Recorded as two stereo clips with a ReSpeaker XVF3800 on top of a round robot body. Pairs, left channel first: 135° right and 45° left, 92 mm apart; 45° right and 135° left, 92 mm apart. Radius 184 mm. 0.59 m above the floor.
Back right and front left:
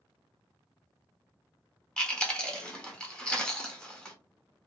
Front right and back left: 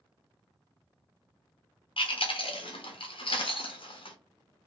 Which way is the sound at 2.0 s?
55° right.